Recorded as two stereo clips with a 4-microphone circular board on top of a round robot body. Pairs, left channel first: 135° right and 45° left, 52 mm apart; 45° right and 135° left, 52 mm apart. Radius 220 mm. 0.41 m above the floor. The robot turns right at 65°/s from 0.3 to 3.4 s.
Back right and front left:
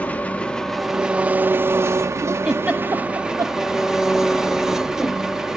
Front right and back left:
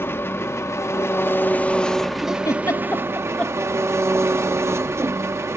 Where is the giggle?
35° right, 0.8 m; by 3.5 s 30° left, 0.8 m.